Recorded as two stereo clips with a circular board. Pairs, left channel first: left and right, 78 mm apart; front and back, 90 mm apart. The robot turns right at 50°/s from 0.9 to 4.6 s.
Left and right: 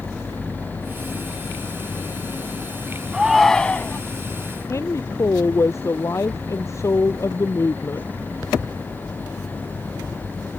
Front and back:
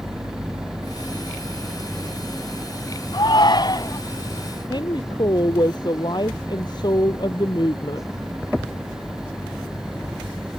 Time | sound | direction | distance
3.1 | a shout | 10° right | ?
4.7 | a woman speaking | 35° left | ?